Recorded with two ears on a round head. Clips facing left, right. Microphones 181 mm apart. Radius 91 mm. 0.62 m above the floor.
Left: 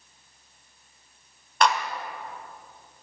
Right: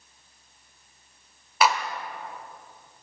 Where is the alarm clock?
No alarm clock in this recording.